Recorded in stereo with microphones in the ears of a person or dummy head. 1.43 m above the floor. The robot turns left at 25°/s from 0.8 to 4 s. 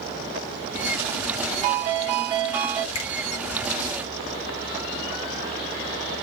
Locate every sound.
1.6 s a ringtone: 130° right, 0.6 m; by 2.9 s 160° right, 0.6 m
3.0 s a finger snap: 85° left, 1.3 m